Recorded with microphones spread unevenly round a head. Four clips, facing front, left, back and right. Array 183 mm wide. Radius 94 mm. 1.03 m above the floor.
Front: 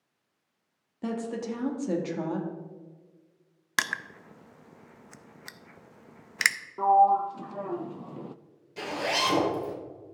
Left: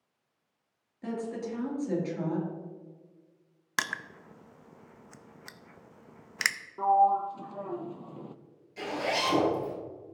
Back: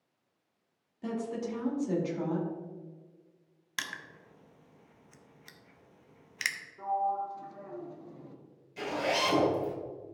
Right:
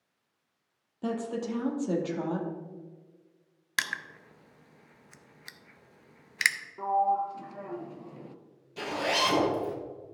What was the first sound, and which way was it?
A woman speaking, 30° right.